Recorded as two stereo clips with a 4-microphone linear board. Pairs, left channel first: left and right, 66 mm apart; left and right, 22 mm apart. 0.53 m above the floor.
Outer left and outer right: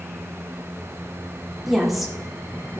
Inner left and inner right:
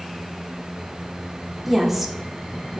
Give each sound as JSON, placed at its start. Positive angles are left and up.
{"t": 1.7, "sound": "a woman speaking", "side_deg": -5, "distance_m": 1.2}